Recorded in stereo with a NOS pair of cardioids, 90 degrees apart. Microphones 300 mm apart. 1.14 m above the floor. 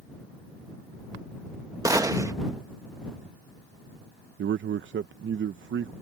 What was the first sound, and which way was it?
A gunshot, 10° right.